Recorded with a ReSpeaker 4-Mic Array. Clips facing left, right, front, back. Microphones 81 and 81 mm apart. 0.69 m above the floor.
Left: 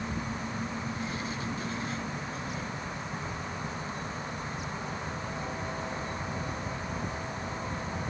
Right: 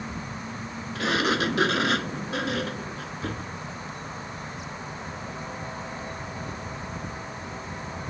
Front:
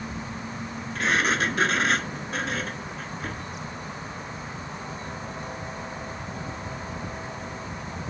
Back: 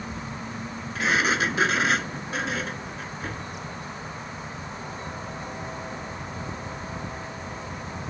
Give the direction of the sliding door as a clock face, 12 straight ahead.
3 o'clock.